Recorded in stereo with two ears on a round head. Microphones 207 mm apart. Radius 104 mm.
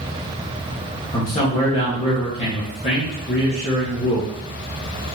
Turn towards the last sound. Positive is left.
turn(degrees=30)  # may be behind; listen again after turning